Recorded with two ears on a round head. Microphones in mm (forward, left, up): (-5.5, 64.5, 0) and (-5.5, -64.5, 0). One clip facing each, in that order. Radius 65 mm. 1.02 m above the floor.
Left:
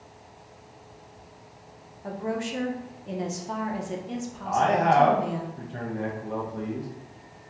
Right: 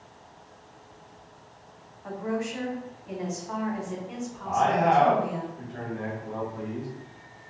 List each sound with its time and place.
2.0 s a woman speaking: 35° left (ahead or behind), 0.5 m
4.4 s a man speaking: 45° left (ahead or behind), 0.9 m